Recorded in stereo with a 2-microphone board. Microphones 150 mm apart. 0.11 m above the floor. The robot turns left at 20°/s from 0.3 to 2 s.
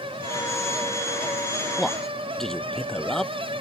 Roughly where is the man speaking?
Centre.